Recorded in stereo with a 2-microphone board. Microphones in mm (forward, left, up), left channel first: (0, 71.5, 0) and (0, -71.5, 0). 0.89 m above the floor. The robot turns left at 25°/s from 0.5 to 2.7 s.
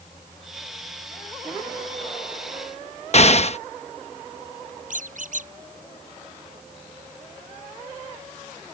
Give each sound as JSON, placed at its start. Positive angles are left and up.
{"t": 3.1, "sound": "an explosion", "side_deg": 50}
{"t": 4.9, "sound": "a squeak", "side_deg": -65}